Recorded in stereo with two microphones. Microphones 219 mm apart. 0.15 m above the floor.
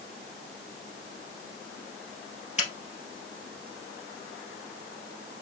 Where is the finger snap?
30° left (ahead or behind), 2.5 m.